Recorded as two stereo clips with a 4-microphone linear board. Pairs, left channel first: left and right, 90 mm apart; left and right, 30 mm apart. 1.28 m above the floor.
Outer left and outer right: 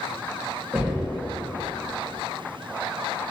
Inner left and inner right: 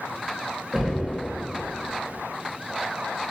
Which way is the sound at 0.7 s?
20° right (ahead or behind).